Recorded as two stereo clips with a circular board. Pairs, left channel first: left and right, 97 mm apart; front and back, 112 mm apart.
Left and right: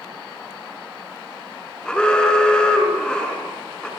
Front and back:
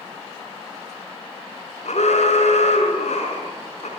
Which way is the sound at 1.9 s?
10° left.